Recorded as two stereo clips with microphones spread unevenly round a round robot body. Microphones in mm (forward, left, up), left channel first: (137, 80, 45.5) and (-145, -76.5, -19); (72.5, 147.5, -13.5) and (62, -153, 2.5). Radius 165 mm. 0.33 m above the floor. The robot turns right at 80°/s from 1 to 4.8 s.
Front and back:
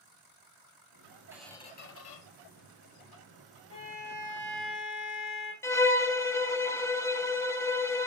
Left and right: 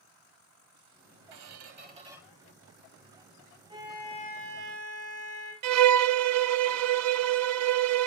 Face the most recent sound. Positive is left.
turn(degrees=-60)